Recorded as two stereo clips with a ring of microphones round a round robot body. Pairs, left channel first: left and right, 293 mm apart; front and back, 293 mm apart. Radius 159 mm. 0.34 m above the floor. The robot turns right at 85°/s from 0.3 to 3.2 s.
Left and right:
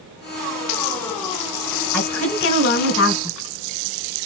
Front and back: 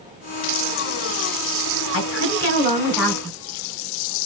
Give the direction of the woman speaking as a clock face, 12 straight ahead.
12 o'clock.